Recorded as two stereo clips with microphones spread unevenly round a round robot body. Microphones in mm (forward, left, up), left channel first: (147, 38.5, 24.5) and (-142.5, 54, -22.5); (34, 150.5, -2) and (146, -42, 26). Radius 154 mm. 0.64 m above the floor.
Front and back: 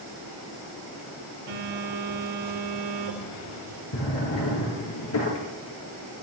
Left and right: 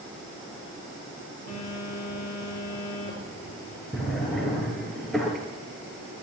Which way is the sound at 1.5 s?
170° left.